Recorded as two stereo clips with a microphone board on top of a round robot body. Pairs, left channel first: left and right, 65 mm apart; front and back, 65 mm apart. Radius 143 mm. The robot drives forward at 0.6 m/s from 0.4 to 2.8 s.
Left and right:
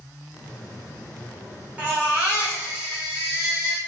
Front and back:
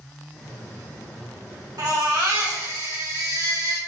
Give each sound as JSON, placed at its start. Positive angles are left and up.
{"t": 1.8, "sound": "a baby crying", "azimuth_deg": -160, "distance_m": 2.5}